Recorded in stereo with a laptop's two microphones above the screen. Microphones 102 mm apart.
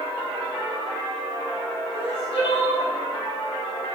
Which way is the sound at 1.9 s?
60° left (ahead or behind).